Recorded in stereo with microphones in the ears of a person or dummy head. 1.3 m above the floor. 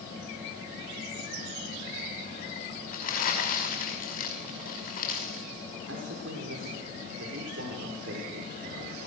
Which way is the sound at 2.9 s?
50° left (ahead or behind).